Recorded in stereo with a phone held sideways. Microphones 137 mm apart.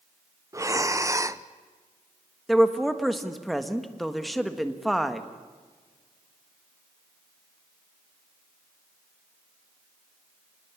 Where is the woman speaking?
Centre (ahead or behind), 1.5 m.